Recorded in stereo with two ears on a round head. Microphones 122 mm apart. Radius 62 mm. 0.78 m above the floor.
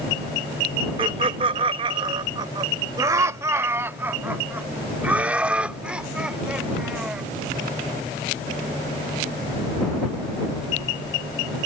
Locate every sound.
1.0 s laughter: 35° right (ahead or behind); by 7.2 s 5° right (ahead or behind)